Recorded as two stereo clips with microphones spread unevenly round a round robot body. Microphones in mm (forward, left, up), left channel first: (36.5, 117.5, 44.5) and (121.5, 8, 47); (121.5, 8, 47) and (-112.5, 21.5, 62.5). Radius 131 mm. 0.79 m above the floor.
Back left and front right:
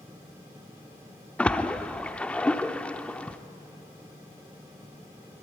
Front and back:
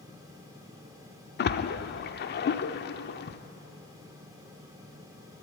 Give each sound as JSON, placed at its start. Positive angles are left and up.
{"t": 1.4, "sound": "a splash", "azimuth_deg": 45, "distance_m": 0.9}